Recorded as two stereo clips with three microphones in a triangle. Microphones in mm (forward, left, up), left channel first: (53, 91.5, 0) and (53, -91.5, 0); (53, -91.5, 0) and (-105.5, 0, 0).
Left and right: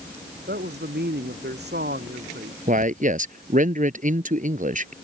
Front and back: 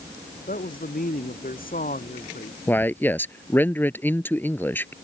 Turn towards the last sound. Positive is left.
turn(degrees=-105)